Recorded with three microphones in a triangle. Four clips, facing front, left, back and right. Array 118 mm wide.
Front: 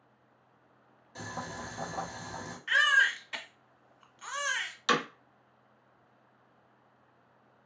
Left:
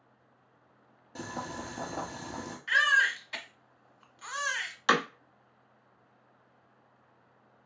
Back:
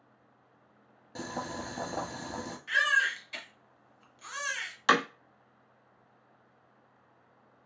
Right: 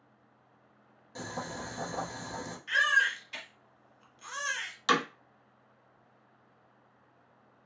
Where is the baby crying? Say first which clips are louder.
Left 2 dB, front 2 dB; 45° left, 0.8 m.